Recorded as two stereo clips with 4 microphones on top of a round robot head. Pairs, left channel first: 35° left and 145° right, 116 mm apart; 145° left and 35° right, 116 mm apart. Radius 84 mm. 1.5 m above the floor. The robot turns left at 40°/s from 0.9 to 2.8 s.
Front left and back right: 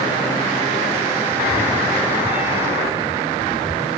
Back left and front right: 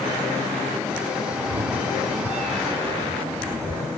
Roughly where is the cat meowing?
Ahead right.